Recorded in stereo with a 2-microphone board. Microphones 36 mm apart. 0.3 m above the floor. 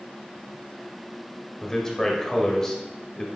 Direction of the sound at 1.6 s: 15° left (ahead or behind).